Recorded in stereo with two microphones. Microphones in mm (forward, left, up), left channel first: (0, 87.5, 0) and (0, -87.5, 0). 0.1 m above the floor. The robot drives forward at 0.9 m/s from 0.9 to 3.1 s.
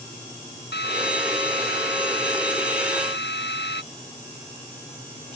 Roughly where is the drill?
Left.